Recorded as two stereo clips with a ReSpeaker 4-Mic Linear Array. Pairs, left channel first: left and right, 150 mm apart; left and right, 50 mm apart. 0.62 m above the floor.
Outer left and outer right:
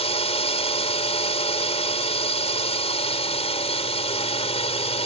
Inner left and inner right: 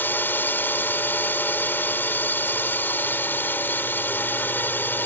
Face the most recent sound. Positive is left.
turn(degrees=45)  # may be behind; listen again after turning